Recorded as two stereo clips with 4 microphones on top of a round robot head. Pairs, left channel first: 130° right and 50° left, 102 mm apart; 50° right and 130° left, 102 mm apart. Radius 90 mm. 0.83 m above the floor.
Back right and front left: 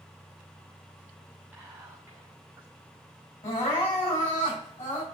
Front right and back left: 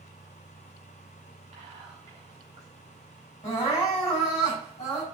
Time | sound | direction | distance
1.5 | whispering | 130° left | 2.5 m
3.4 | crying | 105° right | 5.5 m